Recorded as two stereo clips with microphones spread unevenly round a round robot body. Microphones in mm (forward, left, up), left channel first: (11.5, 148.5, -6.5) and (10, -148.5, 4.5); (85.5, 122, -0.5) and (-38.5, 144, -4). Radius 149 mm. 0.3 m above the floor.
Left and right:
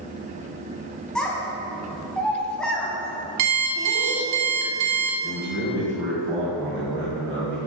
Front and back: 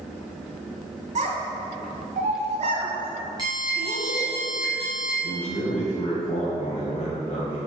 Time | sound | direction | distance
1.1 | a child speaking | 175° left | 1.8 m
3.4 | an alarm clock | 120° right | 1.7 m
5.2 | a man speaking | 15° right | 1.8 m